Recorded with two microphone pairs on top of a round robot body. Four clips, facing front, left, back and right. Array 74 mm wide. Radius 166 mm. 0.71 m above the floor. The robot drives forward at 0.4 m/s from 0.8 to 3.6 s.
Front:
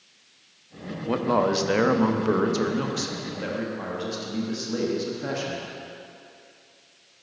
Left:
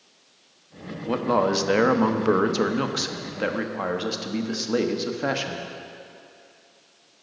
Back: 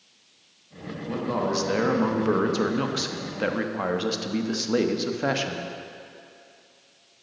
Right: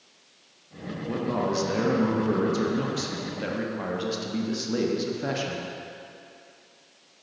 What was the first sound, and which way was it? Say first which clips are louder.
A man speaking: left 6 dB, front 4 dB; 55° left.